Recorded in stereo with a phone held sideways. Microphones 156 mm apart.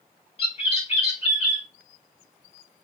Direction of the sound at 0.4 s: 40° left (ahead or behind).